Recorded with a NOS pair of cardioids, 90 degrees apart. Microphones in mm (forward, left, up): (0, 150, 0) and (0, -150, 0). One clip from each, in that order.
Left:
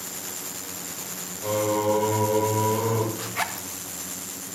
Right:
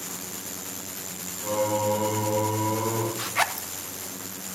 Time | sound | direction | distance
1.4 | singing | 55° left | 5 m
3.1 | a zipper | 20° right | 0.6 m